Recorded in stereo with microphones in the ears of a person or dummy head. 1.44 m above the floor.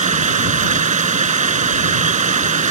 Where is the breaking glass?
No breaking glass in this recording.